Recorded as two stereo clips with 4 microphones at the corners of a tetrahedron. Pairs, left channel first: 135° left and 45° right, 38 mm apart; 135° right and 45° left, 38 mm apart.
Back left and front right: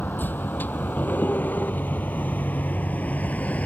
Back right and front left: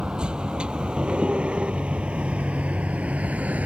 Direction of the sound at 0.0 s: 110° left.